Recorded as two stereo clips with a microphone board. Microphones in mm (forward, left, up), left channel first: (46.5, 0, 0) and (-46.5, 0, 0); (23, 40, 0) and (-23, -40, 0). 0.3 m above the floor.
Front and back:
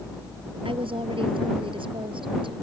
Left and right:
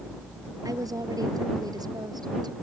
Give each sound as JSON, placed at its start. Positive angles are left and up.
{"t": 0.7, "sound": "a woman speaking", "azimuth_deg": -170}